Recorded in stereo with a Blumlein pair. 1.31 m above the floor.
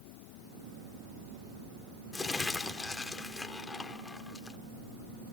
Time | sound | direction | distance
2.1 | crumpling | 10° left | 1.2 m